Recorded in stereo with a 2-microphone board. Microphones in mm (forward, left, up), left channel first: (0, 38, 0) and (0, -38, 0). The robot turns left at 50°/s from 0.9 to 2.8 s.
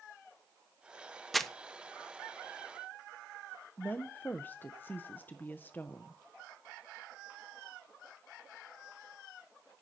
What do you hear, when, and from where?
1.3 s crumpling: centre (ahead or behind), 0.9 m; by 1.5 s 10° left (ahead or behind), 0.9 m
3.8 s a woman speaking: 25° left (ahead or behind), 0.9 m